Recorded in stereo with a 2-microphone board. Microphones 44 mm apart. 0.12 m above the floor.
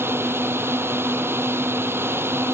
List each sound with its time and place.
0.0 s a drone: 60° right (ahead or behind)